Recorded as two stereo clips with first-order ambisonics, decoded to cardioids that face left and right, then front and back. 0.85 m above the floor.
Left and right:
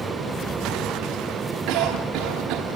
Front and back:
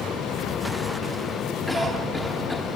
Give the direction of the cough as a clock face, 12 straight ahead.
3 o'clock.